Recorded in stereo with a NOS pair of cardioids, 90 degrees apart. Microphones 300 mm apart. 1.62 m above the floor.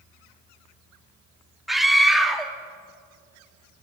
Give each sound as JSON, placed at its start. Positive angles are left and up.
{"t": 1.7, "sound": "a scream", "azimuth_deg": 0, "distance_m": 3.0}